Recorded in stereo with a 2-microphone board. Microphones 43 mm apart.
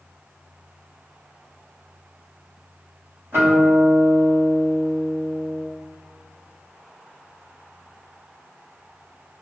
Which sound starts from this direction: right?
A guitar, at 3.3 s.